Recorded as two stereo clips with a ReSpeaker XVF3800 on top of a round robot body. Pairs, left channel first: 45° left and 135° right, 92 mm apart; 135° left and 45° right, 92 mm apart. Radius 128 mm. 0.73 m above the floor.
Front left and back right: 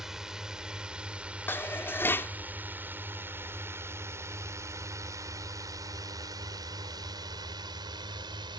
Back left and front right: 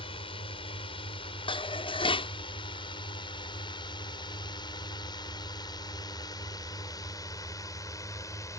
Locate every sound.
0.0 s a drone: 140° left; by 8.6 s 170° right
1.5 s dishes clattering: 115° left